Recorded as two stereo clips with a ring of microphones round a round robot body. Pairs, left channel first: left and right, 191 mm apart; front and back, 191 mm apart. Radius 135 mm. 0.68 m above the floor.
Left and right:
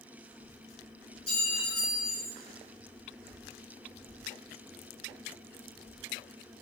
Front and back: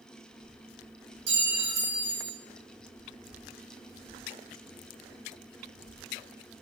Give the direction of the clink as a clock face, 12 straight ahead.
7 o'clock.